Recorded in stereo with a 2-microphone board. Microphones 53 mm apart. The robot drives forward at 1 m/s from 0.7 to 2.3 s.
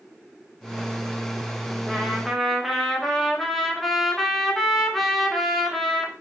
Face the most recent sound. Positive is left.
turn(degrees=0)  # may be behind; listen again after turning